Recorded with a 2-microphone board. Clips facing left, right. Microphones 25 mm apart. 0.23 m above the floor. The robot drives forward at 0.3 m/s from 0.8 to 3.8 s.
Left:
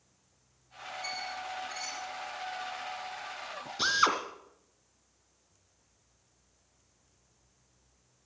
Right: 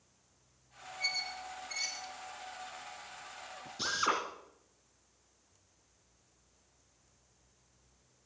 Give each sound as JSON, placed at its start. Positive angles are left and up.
{"t": 1.0, "sound": "a squeak", "side_deg": -35, "distance_m": 3.0}
{"t": 3.8, "sound": "a drill", "side_deg": 45, "distance_m": 2.0}